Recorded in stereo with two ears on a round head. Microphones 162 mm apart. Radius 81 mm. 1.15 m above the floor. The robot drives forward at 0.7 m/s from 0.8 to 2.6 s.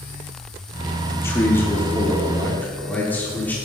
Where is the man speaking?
15° left (ahead or behind), 2 m; by 3.5 s 10° left (ahead or behind), 3 m.